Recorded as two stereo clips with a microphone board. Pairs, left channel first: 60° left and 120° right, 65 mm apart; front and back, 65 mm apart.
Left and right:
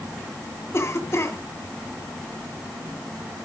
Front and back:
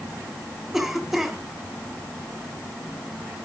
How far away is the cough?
About 2.5 m.